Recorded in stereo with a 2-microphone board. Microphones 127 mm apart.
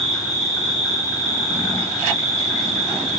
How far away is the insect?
About 1.2 m.